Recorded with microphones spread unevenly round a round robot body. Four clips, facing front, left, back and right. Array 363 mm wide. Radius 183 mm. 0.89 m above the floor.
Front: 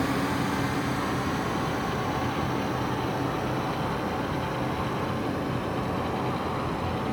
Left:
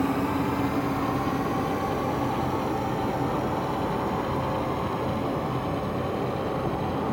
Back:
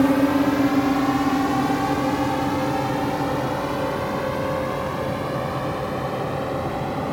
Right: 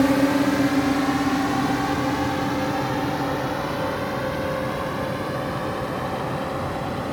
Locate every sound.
0.0 s a drone: 145° right; by 7.1 s 155° right